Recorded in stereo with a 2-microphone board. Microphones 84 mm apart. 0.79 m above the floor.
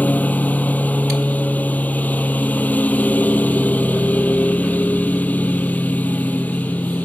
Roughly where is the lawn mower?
Left.